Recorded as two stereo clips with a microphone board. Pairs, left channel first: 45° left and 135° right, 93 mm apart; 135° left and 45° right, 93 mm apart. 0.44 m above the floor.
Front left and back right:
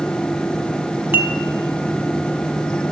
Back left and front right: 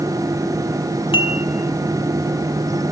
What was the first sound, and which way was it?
Dishes clattering, 155° left.